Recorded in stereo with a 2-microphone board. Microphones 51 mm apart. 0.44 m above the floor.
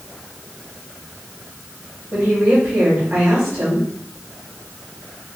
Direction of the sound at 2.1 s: 50° right (ahead or behind).